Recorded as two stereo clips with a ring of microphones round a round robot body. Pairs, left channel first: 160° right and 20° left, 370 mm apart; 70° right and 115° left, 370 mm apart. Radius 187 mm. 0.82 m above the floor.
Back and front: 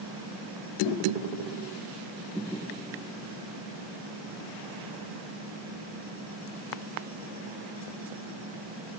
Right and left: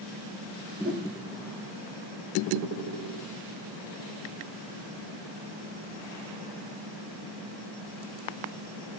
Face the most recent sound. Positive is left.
turn(degrees=180)